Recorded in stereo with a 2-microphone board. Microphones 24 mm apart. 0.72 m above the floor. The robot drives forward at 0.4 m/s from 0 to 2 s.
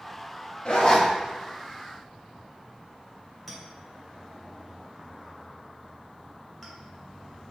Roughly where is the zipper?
Left.